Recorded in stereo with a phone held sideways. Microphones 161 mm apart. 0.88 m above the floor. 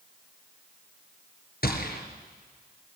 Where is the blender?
I don't hear a blender.